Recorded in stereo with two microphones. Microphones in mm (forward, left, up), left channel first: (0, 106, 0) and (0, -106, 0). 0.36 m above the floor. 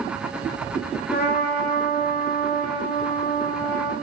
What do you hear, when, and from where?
1.1 s a trumpet: 45° left (ahead or behind), 1.1 m